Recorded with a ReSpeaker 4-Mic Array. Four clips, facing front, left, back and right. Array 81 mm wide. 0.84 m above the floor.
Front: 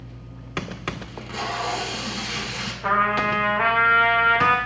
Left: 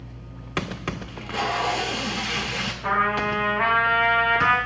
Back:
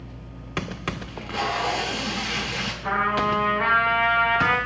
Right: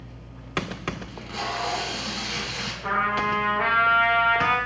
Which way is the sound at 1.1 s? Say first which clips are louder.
Left 8 dB, back 5 dB; 120° left.